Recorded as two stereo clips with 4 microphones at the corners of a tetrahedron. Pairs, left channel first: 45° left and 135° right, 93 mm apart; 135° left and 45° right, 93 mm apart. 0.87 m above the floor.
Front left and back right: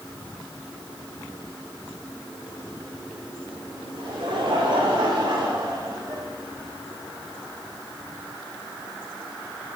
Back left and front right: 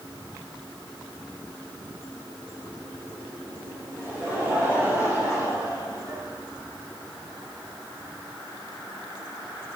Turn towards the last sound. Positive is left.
turn(degrees=-95)